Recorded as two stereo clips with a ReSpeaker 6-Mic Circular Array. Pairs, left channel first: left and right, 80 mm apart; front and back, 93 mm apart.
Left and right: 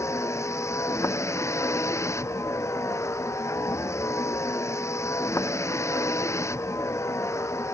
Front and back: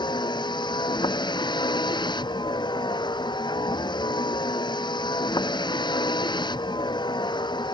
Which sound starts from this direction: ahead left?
A vehicle, at 0.0 s.